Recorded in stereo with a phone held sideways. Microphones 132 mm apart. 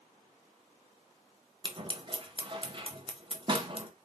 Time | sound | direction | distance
1.6 | scissors | 40° right (ahead or behind) | 0.7 m